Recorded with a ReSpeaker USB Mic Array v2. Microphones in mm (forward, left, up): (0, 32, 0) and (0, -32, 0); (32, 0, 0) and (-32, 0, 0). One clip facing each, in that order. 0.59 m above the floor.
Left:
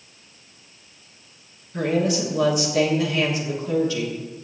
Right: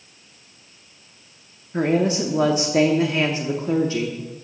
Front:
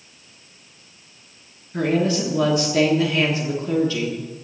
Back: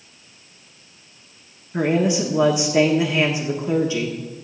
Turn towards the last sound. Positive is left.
turn(degrees=-120)